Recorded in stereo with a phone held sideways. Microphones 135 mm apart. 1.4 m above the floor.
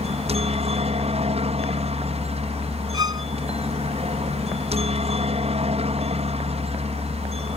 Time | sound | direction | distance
0.0 | a helicopter | 50° right (ahead or behind) | ?
2.9 | a violin | 30° right (ahead or behind) | ?